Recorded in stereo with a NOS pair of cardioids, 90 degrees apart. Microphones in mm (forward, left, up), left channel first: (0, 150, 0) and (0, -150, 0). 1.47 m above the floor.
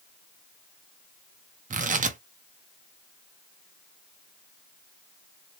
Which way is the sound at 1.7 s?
25° right.